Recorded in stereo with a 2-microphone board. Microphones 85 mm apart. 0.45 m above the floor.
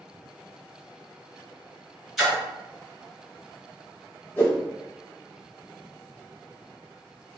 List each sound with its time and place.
2.2 s a splash: centre (ahead or behind), 1.8 m
4.4 s a whoosh: 20° left (ahead or behind), 1.0 m